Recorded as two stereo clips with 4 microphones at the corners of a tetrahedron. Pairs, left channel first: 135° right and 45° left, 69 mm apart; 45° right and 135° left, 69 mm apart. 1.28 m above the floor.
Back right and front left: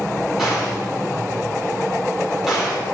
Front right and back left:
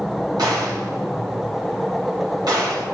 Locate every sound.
0.4 s a gunshot: 130° left, 3.5 m